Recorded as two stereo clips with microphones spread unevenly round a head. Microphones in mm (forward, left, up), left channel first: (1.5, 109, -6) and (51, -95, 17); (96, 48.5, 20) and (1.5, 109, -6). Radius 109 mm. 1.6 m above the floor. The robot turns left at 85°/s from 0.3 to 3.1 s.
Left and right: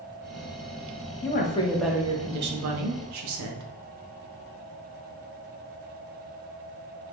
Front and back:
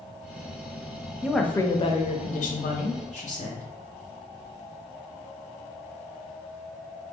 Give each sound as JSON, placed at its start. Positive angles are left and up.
{"t": 1.2, "sound": "a woman speaking", "azimuth_deg": 70, "distance_m": 0.8}